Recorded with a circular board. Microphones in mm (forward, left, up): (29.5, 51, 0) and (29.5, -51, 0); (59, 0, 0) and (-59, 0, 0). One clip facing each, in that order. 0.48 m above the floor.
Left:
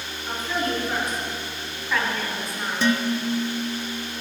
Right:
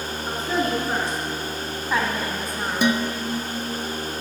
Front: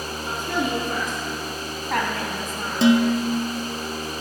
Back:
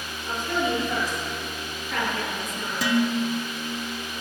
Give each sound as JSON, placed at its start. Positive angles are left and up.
{"t": 0.3, "sound": "a woman speaking", "azimuth_deg": -30, "distance_m": 5.0}
{"t": 2.8, "sound": "dishes clattering", "azimuth_deg": -30, "distance_m": 0.6}